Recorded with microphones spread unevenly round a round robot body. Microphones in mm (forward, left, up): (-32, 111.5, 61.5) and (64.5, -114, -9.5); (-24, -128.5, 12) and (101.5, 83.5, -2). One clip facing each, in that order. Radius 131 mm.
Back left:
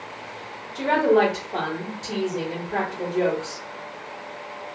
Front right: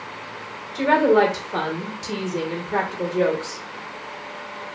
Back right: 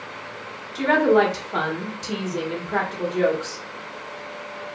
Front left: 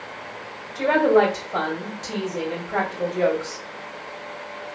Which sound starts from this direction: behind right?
A woman speaking, at 0.8 s.